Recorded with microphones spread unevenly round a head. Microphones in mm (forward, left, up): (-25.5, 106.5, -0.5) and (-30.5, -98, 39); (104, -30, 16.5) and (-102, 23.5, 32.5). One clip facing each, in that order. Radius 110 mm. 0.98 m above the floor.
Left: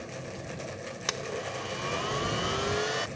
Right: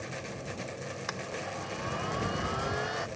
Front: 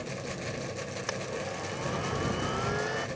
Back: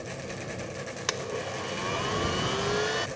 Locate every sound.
1.1 s a blender: 135° left